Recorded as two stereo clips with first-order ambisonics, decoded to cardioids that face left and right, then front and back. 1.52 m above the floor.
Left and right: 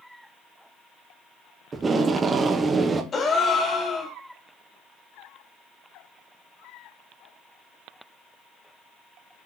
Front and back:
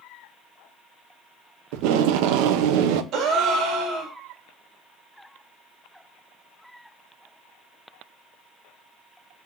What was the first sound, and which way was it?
Tape being pulled, 165° right.